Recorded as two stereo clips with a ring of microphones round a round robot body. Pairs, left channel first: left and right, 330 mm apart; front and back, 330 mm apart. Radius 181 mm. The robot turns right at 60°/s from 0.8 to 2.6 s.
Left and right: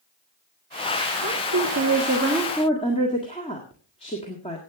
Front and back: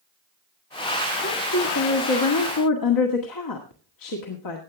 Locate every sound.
1.2 s a woman speaking: 65° right, 1.7 m; by 4.6 s 15° left, 1.7 m